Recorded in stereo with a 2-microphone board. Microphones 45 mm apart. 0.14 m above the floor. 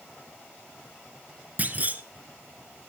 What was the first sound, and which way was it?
A clunk, 35° right (ahead or behind).